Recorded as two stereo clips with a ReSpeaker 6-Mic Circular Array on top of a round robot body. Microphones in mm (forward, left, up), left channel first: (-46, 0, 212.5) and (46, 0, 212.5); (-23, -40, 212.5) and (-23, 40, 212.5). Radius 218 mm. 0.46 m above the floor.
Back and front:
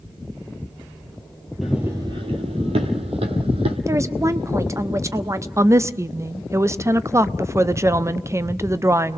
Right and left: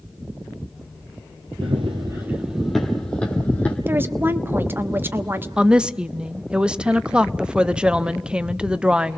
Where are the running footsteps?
90° left, 0.6 m; by 3.8 s 20° right, 1.4 m.